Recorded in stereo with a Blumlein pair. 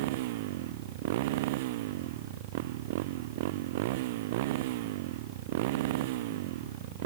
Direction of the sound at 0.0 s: 50° right.